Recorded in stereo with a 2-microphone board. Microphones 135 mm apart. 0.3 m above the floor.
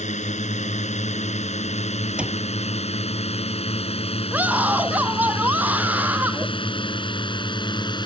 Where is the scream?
10° right (ahead or behind).